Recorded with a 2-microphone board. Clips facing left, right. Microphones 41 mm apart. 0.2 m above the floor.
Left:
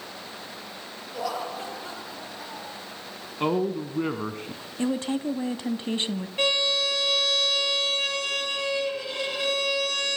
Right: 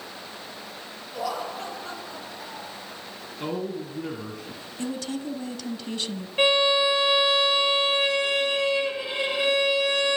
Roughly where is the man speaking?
Left.